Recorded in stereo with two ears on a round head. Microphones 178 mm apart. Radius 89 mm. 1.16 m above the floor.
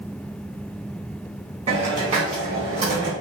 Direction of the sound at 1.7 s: 30° right (ahead or behind).